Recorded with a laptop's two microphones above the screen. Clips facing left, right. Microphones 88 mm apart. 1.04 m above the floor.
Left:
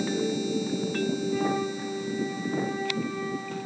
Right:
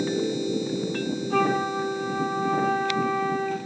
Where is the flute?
65° right (ahead or behind), 7.5 m.